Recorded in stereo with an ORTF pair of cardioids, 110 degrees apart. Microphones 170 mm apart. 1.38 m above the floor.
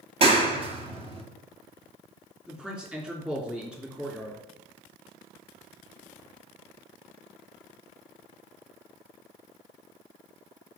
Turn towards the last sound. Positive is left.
turn(degrees=-5)